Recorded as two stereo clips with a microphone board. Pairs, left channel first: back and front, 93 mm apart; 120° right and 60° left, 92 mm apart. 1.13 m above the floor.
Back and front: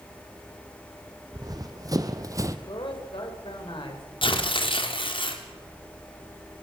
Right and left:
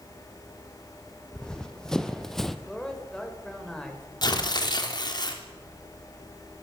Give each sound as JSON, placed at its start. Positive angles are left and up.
{"t": 1.3, "sound": "running footsteps", "azimuth_deg": -40, "distance_m": 2.5}
{"t": 2.7, "sound": "a man speaking", "azimuth_deg": 155, "distance_m": 6.0}
{"t": 4.2, "sound": "tearing paper", "azimuth_deg": -160, "distance_m": 3.5}